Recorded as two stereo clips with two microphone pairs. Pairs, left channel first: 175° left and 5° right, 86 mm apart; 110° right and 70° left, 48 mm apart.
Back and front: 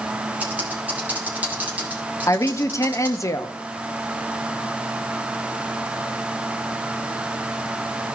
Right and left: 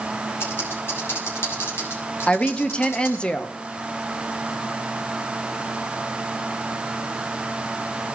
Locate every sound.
0.4 s typing on a keyboard: 80° right, 2.5 m
2.3 s a woman speaking: 165° right, 0.6 m